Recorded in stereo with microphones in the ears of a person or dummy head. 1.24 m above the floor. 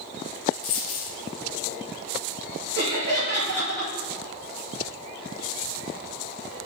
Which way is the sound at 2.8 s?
55° right (ahead or behind).